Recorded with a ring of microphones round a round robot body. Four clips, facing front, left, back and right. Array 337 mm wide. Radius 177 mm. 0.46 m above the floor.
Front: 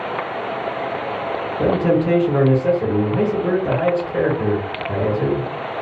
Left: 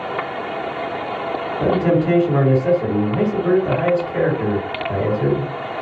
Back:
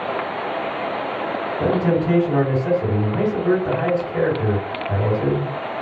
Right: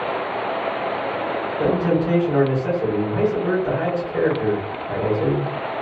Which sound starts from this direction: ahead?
A man speaking, at 1.6 s.